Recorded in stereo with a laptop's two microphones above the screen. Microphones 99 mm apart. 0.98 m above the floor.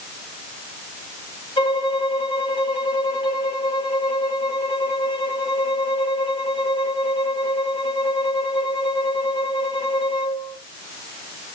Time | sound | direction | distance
1.6 | a violin | 65° left (ahead or behind) | 1.2 m